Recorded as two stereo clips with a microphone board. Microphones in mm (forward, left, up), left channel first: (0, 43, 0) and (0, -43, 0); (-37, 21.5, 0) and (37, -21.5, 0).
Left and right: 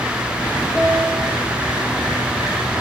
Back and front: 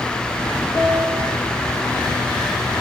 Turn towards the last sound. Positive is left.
turn(degrees=165)